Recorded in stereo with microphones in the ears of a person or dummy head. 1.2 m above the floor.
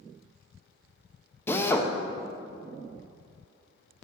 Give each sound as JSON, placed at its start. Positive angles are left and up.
{"t": 1.5, "sound": "a drill", "side_deg": 15, "distance_m": 0.8}